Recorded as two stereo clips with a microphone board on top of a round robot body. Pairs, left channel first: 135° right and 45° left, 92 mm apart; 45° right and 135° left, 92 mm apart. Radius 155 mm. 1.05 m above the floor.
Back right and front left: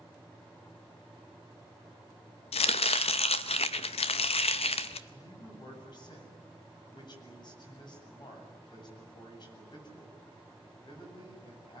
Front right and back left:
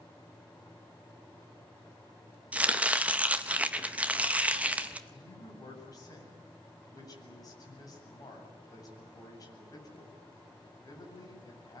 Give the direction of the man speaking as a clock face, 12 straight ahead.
3 o'clock.